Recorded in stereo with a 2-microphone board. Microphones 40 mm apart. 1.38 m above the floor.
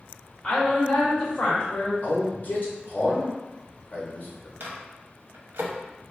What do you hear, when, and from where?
0.4 s a woman speaking: 30° left (ahead or behind), 1.4 m
2.0 s a man speaking: 50° left (ahead or behind), 0.7 m
4.6 s a microwave: 70° right (ahead or behind), 0.6 m